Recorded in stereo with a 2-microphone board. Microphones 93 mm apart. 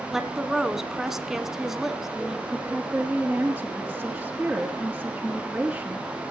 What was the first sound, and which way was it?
A woman speaking, 5° right (ahead or behind).